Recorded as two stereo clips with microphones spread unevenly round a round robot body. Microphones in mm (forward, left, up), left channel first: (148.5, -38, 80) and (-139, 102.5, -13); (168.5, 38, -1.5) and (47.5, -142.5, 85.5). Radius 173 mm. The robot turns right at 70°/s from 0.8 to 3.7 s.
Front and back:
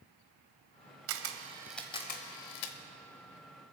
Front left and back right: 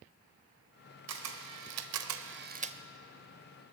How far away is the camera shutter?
About 0.8 m.